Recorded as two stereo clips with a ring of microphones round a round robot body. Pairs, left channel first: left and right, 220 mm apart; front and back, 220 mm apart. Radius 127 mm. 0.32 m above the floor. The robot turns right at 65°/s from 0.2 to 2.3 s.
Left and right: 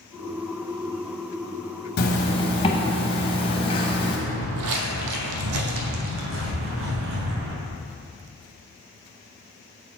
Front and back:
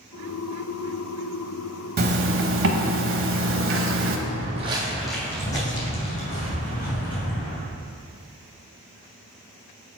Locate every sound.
2.0 s a zipper: 135° left, 0.8 m; by 4.2 s 155° left, 0.8 m
4.3 s footsteps: 135° right, 0.6 m; by 7.5 s 55° right, 2 m